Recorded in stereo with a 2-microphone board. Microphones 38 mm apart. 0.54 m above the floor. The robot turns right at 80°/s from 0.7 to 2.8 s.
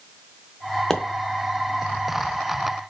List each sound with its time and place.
0.9 s a pop: 15° left (ahead or behind), 0.5 m; by 1.0 s 5° left (ahead or behind), 0.5 m